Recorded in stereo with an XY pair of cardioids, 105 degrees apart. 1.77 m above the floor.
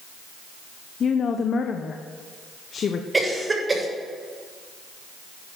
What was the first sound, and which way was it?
A woman speaking, 50° left.